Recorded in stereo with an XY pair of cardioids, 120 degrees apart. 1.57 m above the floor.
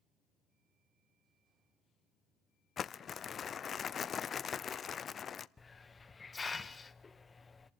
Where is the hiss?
20° left, 0.8 m.